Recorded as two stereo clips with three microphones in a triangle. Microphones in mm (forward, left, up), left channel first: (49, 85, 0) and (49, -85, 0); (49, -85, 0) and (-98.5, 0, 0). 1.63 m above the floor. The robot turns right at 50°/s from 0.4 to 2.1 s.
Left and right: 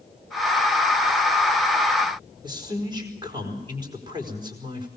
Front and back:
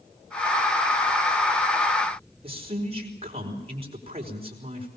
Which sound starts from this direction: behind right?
A man speaking, at 2.4 s.